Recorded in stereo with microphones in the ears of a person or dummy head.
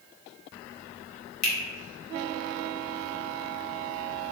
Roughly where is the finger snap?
Left.